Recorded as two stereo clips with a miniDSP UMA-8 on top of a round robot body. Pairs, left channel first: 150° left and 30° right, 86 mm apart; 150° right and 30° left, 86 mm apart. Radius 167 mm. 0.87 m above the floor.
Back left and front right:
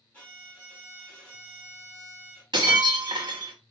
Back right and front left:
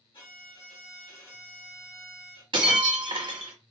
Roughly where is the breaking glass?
Ahead.